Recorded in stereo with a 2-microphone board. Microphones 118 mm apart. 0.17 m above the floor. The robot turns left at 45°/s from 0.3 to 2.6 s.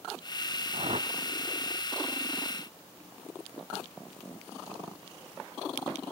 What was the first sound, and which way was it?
A whoosh, 55° right (ahead or behind).